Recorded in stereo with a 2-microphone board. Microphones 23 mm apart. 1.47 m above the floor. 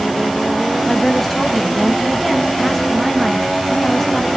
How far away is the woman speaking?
About 2 m.